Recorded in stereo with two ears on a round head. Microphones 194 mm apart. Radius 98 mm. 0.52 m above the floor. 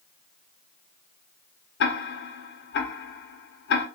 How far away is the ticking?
About 0.8 m.